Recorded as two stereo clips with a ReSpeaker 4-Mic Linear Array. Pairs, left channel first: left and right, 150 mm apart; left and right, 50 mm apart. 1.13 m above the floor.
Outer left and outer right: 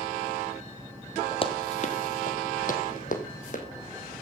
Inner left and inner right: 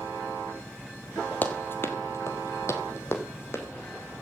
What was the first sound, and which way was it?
Running footsteps, 35° left (ahead or behind).